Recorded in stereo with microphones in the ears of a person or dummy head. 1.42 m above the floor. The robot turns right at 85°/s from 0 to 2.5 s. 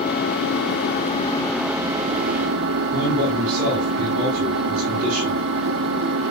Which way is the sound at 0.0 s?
45° left.